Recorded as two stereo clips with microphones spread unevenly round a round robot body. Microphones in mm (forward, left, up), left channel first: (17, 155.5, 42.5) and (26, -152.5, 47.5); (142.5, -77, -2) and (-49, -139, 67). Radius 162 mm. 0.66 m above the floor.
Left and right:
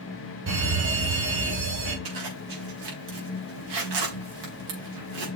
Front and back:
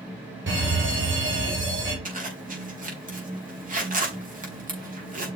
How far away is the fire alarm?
About 4 m.